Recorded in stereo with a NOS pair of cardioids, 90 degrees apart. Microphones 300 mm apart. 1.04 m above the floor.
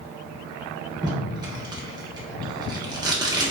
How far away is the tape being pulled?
About 1.0 m.